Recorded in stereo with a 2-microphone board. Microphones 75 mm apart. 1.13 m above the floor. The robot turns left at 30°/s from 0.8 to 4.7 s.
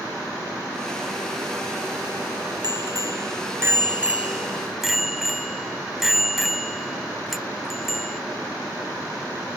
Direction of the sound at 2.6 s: 115° right.